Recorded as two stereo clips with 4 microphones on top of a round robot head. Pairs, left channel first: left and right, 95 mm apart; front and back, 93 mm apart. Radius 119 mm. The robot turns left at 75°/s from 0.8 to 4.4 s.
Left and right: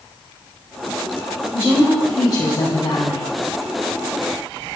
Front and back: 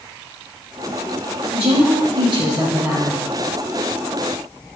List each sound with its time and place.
1.5 s a woman speaking: 150° right, 4 m; by 3.3 s 80° left, 4 m